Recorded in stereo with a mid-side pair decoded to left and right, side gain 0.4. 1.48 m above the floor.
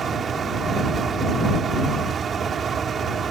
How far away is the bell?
No bell in this recording.